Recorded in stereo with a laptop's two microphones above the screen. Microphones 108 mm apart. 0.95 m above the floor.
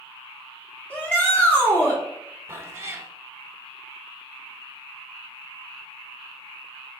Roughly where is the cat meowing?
Right.